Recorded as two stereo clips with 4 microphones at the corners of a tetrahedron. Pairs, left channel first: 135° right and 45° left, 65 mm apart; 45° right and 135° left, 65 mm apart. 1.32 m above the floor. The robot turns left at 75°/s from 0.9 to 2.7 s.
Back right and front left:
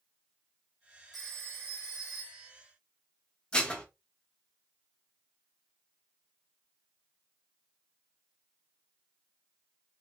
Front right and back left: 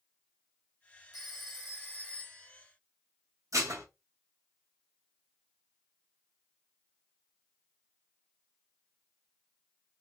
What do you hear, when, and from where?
1.1 s a phone ringing: 45° right, 1.1 m; by 2.5 s 145° right, 1.1 m
3.5 s dishes clattering: 155° left, 0.8 m